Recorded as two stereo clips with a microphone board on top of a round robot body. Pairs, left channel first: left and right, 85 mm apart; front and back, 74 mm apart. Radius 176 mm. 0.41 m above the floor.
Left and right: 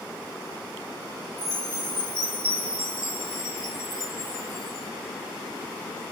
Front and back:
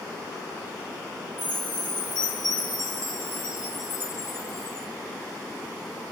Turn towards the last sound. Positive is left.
turn(degrees=-20)